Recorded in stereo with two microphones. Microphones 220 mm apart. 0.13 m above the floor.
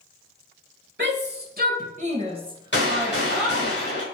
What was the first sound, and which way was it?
A shout, 55° right (ahead or behind).